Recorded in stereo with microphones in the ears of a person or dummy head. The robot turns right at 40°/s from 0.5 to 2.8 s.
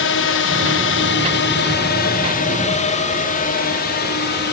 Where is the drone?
60° left (ahead or behind); by 4.5 s 55° left (ahead or behind).